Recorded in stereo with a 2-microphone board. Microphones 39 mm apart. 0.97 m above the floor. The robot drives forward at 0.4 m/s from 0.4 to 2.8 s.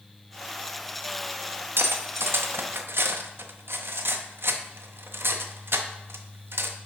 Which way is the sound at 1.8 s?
65° right (ahead or behind).